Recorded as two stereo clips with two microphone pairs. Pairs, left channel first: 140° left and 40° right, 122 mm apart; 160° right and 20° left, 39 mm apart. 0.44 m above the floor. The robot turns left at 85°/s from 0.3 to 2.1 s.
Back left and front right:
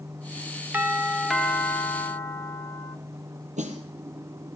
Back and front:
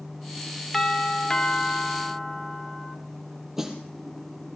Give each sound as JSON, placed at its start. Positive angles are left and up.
{"t": 0.7, "sound": "a doorbell", "azimuth_deg": -85, "distance_m": 1.8}
{"t": 3.6, "sound": "a snare drum", "azimuth_deg": -55, "distance_m": 3.5}